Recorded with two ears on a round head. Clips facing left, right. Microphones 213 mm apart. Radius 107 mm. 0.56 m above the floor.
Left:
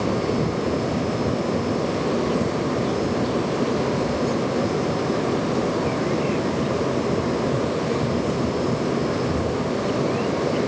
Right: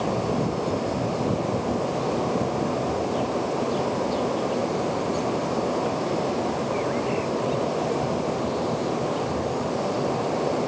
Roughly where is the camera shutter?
No camera shutter in this recording.